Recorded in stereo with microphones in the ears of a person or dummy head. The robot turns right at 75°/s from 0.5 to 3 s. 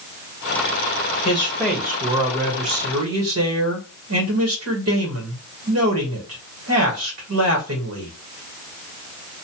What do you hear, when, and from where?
1.2 s a man speaking: 145° left, 1.3 m; by 8.1 s 85° right, 1.3 m